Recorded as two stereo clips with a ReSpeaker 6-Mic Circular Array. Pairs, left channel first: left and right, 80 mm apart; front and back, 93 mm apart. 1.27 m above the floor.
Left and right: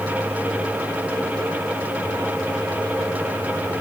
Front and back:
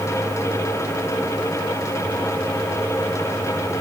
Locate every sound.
Only background noise.